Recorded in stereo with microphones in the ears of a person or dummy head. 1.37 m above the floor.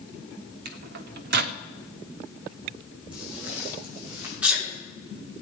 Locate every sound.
0.7 s a microwave: 55° right (ahead or behind), 0.6 m
3.1 s footsteps: 5° right (ahead or behind), 5 m; by 4.3 s 15° right (ahead or behind), 5.5 m
4.4 s a sneeze: 5° right (ahead or behind), 4.5 m